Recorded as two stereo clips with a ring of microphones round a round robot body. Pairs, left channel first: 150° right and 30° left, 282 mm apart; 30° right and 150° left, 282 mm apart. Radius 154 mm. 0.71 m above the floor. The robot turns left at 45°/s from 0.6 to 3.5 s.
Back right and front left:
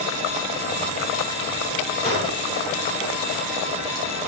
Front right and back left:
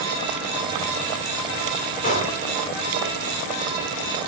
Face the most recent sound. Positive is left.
turn(degrees=-160)